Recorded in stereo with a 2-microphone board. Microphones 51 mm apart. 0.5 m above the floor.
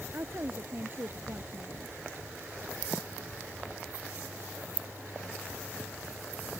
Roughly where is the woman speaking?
Right.